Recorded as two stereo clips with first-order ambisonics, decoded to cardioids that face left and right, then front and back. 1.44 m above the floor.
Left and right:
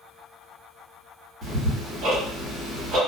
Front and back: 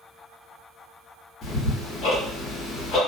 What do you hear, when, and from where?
1.4 s ticking: 45° right, 1.2 m